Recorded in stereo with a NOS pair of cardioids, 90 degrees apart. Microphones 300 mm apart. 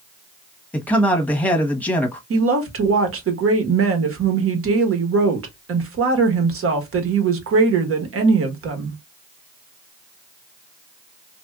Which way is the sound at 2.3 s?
50° right.